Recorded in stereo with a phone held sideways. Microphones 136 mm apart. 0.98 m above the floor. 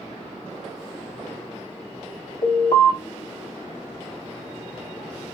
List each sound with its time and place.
2.4 s an alarm: 55° left (ahead or behind), 2 m